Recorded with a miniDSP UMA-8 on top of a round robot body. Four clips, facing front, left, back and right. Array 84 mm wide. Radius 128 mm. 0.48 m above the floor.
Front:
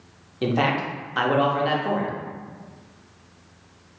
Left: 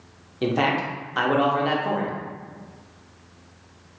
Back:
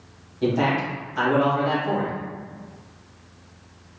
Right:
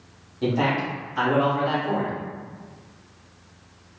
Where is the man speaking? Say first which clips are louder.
Left 1 dB, back 1 dB; 40° left, 1.2 m.